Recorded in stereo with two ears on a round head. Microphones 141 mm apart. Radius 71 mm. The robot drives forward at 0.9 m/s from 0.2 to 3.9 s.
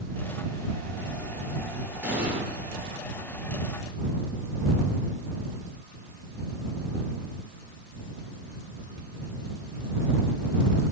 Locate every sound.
2.0 s an explosion: 5° right (ahead or behind), 8.5 m